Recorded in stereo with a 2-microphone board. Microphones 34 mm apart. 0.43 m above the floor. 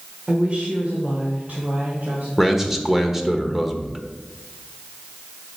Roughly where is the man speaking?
Centre.